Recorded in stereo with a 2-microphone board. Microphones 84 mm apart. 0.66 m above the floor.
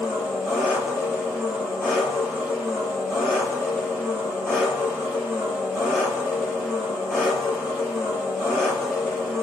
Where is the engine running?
5° left (ahead or behind), 4 m.